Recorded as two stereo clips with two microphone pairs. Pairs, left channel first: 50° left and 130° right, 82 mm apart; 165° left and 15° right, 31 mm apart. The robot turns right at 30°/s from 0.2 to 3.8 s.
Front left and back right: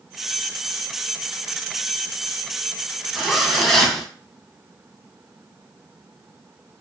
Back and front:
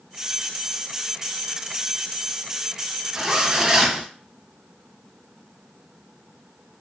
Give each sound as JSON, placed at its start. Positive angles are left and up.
{"t": 3.1, "sound": "a zipper", "azimuth_deg": -45, "distance_m": 0.7}